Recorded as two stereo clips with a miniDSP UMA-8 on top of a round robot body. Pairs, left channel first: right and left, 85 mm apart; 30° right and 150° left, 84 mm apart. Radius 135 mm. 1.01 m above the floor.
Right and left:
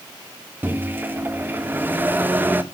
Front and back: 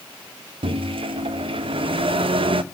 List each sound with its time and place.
0.6 s a microwave: 160° left, 1.3 m